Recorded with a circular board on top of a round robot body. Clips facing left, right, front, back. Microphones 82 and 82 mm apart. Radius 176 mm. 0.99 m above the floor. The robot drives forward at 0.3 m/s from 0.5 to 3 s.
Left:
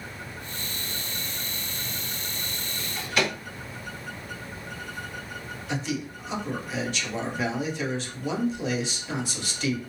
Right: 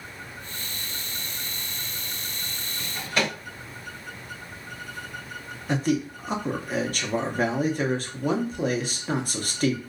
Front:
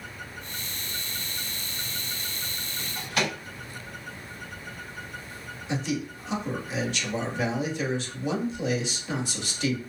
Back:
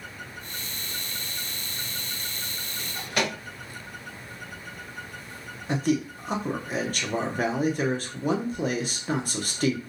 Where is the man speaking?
135° right, 0.6 m.